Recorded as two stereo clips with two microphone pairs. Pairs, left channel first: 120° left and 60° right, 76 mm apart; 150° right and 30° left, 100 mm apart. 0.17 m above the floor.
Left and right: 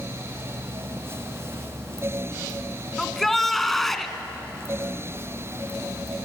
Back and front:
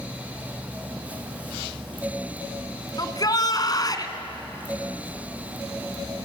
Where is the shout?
150° right, 2 m.